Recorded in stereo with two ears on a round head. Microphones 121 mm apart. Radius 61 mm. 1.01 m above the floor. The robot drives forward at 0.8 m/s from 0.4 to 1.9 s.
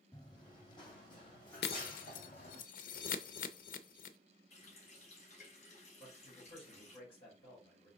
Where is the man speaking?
45° left (ahead or behind), 4 m.